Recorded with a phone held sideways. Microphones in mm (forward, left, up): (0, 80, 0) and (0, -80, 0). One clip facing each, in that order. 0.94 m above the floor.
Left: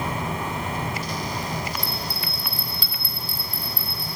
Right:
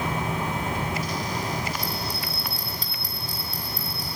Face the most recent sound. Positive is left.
turn(degrees=-40)  # may be behind; listen again after turning